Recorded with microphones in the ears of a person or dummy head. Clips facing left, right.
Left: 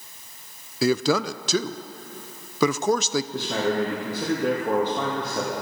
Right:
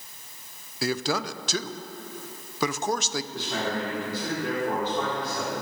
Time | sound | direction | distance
0.8 | a man speaking | 70° left (ahead or behind) | 0.5 m
3.3 | a man speaking | 50° left (ahead or behind) | 2.5 m